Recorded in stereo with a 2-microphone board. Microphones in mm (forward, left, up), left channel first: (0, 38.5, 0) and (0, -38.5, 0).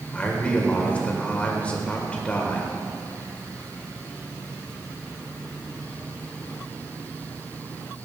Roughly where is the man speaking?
Centre.